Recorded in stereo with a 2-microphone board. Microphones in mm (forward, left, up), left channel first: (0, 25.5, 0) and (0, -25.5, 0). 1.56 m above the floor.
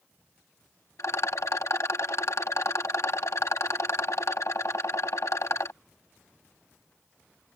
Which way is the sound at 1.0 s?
70° left (ahead or behind).